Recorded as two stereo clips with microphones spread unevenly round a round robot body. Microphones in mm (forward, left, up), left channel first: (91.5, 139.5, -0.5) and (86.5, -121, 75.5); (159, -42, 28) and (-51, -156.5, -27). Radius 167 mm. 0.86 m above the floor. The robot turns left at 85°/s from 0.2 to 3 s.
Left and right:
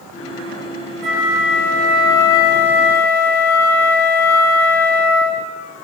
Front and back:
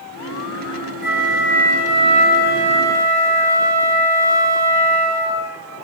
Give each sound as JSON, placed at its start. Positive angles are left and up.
{"t": 1.0, "sound": "a flute", "azimuth_deg": -115, "distance_m": 3.5}